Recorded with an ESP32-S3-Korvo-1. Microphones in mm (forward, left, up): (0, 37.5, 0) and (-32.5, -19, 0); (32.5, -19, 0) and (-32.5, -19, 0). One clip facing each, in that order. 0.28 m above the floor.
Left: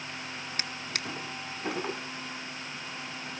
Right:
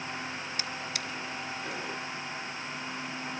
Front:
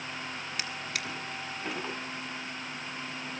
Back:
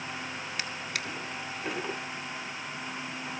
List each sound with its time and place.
0.6 s a drawer: 90° left, 1.6 m